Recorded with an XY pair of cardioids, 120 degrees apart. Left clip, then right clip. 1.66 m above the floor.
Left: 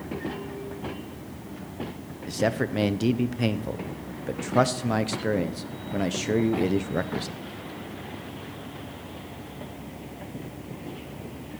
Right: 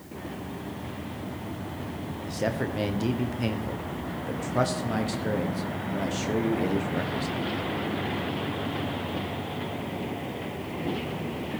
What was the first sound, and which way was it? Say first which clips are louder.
A man speaking: left 4 dB; 25° left.